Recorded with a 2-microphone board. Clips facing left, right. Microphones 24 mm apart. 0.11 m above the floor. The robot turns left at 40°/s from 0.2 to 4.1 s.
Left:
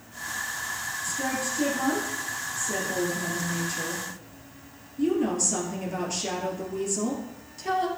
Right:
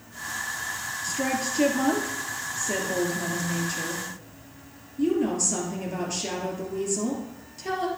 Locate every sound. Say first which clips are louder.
1.0 s a woman speaking: right 3 dB; 60° right, 2.5 m; by 7.9 s straight behind, 2.5 m